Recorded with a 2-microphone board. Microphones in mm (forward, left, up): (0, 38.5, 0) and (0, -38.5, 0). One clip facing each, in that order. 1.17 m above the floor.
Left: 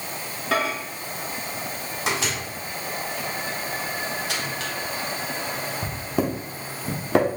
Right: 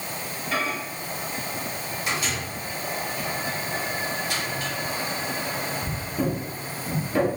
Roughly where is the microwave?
Left.